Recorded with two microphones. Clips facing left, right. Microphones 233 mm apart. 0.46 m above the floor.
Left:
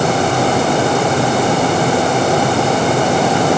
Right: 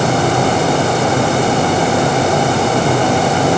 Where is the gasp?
No gasp in this recording.